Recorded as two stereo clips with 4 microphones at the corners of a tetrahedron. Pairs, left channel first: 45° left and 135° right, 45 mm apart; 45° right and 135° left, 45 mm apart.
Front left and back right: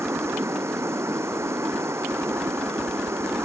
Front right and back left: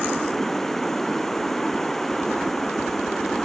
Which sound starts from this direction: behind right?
Running water, at 0.0 s.